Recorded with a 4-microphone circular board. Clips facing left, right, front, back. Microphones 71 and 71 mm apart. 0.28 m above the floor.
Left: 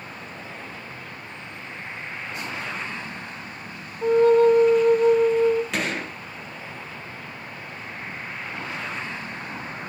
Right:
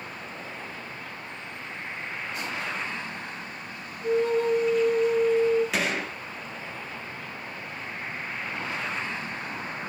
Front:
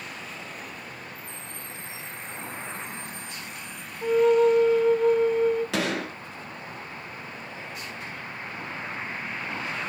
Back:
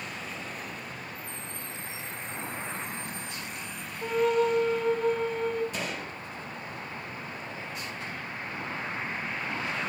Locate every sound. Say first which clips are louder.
4.0 s a flute: left 8 dB, front 6 dB; 90° left, 0.9 m
5.7 s a gunshot: even, front 7 dB; straight ahead, 3 m